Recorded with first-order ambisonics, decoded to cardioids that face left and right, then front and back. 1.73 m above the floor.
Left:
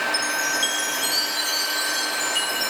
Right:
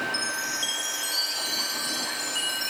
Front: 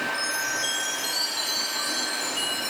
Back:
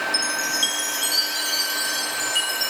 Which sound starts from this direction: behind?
A chime, at 0.1 s.